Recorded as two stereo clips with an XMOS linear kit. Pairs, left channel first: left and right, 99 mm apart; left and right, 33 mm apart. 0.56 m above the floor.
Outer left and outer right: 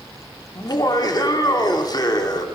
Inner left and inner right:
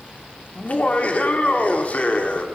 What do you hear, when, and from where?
0.6 s laughter: 45° left (ahead or behind), 1.7 m